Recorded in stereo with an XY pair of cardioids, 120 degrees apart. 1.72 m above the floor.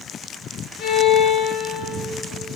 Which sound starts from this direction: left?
A violin, at 0.8 s.